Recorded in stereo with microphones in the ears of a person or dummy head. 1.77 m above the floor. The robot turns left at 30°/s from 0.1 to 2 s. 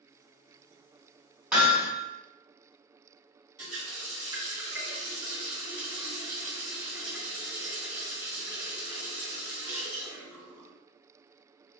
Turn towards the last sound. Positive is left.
turn(degrees=-25)  # may be behind; listen again after turning